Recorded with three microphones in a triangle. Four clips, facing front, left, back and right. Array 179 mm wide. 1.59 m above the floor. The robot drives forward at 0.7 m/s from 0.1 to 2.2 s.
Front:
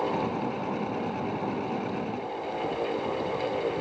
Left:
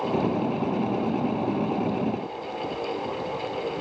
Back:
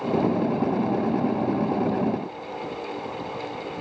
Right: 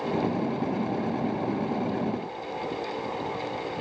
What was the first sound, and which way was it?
Only background noise.